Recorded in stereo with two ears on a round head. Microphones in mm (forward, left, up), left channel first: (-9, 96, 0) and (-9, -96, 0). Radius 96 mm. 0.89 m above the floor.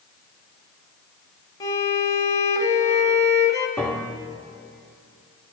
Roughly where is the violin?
Centre.